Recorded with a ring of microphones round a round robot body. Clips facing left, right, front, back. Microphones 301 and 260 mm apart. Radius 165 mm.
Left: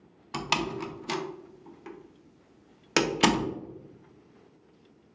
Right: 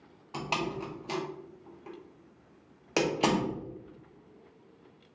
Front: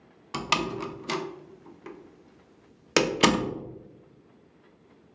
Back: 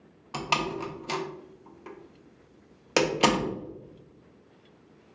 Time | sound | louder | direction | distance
0.3 | a door slam | left 2 dB, front 1 dB | 55° left | 0.6 m